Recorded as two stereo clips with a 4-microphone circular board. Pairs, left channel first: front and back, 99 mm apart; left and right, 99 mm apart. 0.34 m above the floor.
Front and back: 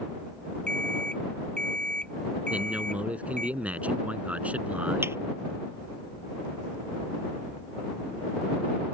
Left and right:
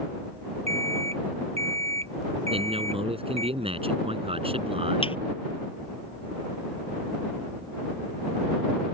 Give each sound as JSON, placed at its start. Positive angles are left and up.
{"t": 0.7, "sound": "an alarm clock", "azimuth_deg": -80}
{"t": 2.5, "sound": "a man speaking", "azimuth_deg": -105}
{"t": 5.0, "sound": "a thud", "azimuth_deg": 115}